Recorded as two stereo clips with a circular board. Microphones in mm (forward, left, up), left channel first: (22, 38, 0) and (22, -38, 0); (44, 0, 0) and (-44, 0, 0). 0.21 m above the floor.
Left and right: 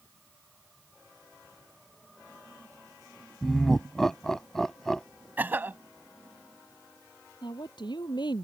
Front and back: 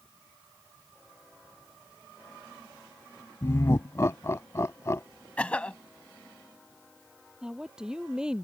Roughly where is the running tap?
No running tap in this recording.